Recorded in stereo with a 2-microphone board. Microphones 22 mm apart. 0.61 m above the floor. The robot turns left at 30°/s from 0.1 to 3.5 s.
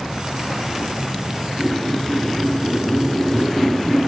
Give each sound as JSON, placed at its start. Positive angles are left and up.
{"t": 1.6, "sound": "a squeak", "azimuth_deg": 135, "distance_m": 1.7}